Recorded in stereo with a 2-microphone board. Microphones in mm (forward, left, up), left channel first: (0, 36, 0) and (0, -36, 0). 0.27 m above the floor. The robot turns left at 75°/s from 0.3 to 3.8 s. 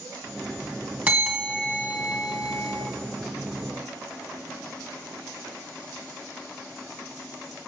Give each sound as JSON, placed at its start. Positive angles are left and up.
{"t": 1.1, "sound": "a bell", "azimuth_deg": -155, "distance_m": 2.5}